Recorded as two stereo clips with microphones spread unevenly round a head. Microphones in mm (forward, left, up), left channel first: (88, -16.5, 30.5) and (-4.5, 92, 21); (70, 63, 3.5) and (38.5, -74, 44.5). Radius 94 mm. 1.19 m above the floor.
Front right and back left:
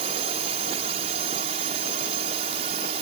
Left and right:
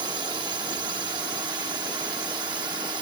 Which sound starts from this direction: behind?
A drone, at 0.0 s.